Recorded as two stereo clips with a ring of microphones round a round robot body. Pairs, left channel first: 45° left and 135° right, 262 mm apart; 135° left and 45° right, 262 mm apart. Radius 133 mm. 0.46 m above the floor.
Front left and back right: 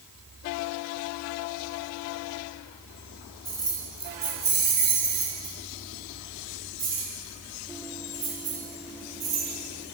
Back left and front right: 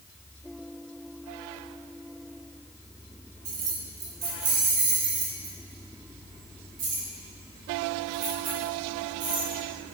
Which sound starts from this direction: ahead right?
Keys jangling, at 3.5 s.